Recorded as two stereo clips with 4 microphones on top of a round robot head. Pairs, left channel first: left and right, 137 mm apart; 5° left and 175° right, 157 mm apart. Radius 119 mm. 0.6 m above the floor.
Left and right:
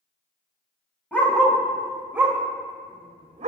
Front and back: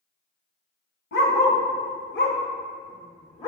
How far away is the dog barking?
About 1.8 m.